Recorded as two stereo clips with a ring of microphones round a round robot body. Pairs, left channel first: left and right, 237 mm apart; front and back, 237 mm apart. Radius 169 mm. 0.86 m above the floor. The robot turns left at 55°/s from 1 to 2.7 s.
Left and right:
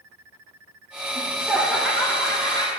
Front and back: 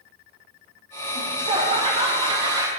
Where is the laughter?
150° right, 0.9 m; by 2.7 s 125° left, 0.9 m.